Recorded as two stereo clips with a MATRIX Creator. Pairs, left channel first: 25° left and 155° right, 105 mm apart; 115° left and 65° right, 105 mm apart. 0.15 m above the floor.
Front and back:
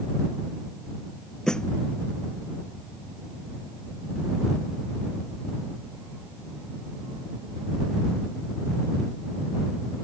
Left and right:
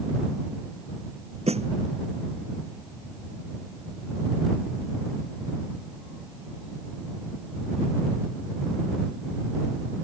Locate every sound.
1.5 s a snare drum: 60° right